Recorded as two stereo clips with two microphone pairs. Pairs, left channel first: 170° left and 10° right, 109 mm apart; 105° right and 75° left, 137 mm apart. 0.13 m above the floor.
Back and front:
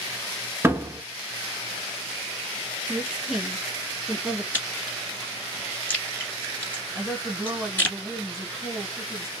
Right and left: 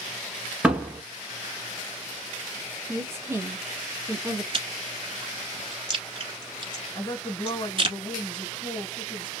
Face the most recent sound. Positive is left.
turn(degrees=-100)